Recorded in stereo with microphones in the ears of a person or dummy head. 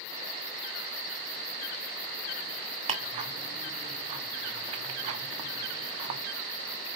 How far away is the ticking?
About 1.1 m.